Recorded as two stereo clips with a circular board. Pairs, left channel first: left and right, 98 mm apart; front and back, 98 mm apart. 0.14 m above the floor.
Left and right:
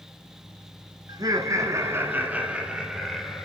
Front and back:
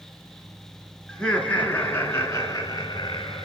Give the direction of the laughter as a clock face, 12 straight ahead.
3 o'clock.